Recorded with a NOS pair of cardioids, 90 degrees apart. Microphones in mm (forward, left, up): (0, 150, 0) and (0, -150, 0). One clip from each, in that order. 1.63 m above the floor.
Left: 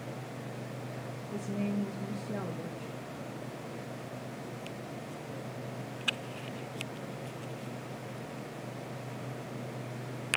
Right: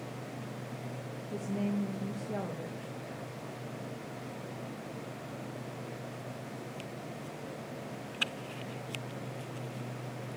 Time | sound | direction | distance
1.3 | a woman speaking | 15° right | 2.0 m